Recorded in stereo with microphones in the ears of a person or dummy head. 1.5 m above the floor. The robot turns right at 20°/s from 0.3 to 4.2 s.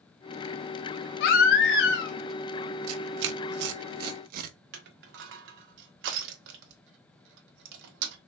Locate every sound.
1.2 s a baby crying: 55° left (ahead or behind), 0.8 m; by 2.1 s 60° left (ahead or behind), 0.8 m
2.9 s tearing paper: 75° right (ahead or behind), 0.6 m; by 4.5 s 50° right (ahead or behind), 0.6 m
4.7 s crushing: 65° right (ahead or behind), 1.0 m